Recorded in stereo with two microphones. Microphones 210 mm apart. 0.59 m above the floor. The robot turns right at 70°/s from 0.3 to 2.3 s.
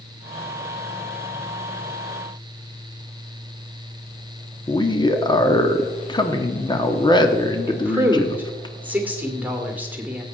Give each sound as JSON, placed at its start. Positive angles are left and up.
{"t": 4.7, "sound": "a man speaking", "side_deg": 20, "distance_m": 1.1}
{"t": 7.7, "sound": "a woman speaking", "side_deg": -10, "distance_m": 2.0}